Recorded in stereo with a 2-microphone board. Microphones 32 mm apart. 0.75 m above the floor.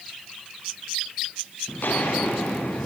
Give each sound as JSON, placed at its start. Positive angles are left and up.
{"t": 1.7, "sound": "footsteps", "side_deg": 80, "distance_m": 5.5}